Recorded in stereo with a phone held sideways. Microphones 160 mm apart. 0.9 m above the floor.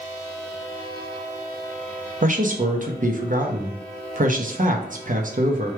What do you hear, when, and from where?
2.2 s a man speaking: 50° right (ahead or behind), 0.7 m